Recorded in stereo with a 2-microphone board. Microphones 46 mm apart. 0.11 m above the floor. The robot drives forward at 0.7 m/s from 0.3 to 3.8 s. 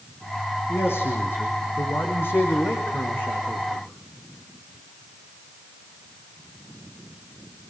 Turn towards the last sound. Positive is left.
turn(degrees=50)  # may be behind; listen again after turning